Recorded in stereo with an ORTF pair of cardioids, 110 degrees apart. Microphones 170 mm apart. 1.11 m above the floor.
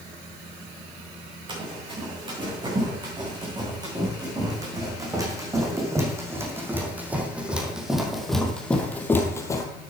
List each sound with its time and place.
1.5 s running footsteps: 30° right, 6.5 m; by 9.7 s 25° left, 2 m